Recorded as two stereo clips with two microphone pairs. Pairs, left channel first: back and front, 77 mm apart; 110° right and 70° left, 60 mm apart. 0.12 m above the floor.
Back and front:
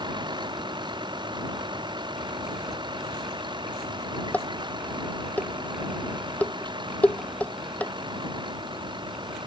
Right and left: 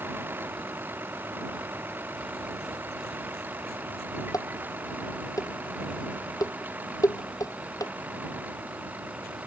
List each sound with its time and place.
0.0 s a vehicle: 15° left; by 9.5 s 10° left
4.3 s dishes clattering: 110° right